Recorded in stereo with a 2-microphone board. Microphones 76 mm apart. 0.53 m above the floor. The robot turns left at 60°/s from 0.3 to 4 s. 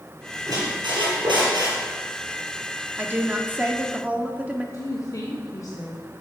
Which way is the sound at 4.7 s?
45° left (ahead or behind).